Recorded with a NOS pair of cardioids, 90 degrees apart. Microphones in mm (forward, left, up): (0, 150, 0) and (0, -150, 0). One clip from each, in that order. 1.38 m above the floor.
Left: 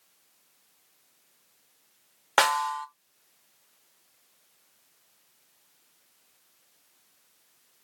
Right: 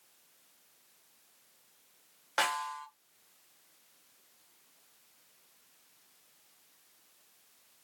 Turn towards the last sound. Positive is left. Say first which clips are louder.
# left 9 dB
turn(degrees=60)